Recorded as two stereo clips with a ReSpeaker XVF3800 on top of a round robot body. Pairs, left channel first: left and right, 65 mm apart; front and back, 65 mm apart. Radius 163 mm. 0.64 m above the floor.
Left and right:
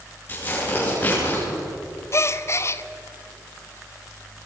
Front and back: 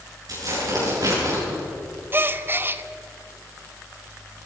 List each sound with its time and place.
0.3 s tearing paper: 155° left, 9.5 m
2.1 s a gasp: 130° left, 1.0 m